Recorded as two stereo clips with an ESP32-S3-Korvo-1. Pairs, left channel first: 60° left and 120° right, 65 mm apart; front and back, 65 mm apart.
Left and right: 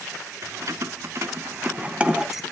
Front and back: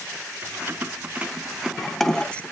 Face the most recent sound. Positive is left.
turn(degrees=-40)